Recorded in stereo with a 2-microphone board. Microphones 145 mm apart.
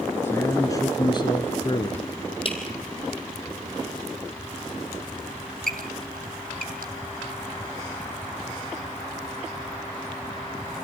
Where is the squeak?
90° right, 2.5 m.